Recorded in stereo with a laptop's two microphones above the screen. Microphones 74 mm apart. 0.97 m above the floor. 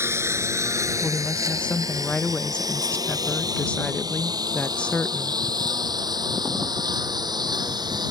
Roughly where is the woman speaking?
Centre.